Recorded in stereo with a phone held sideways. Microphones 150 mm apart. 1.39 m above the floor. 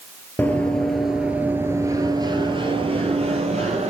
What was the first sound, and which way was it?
Running footsteps, 10° left (ahead or behind).